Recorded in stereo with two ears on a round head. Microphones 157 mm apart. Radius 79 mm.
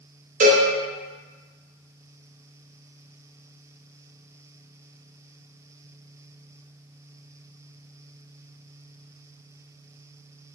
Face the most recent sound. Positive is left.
turn(degrees=-45)  # may be behind; listen again after turning